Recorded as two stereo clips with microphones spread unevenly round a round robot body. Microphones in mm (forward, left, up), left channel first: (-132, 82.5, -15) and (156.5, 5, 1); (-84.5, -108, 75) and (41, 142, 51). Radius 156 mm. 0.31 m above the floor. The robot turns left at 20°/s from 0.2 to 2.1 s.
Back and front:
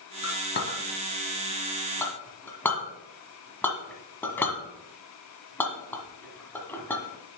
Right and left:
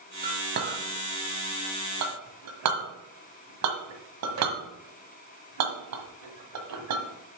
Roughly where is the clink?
Behind left.